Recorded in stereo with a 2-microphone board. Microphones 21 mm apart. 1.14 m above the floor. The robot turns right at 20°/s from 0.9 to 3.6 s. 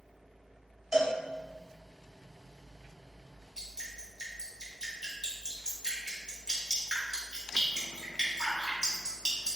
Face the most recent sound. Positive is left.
turn(degrees=-30)  # may be behind; listen again after turning